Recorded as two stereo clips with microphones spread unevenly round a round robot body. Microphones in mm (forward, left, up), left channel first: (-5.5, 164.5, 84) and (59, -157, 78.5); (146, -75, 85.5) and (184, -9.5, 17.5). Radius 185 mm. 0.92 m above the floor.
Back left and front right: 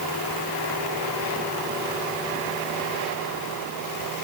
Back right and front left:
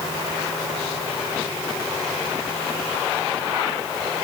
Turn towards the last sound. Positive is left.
No sound to turn to.